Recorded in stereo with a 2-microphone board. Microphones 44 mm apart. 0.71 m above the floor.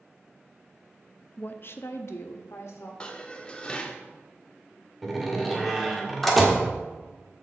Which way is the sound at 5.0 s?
Centre (ahead or behind).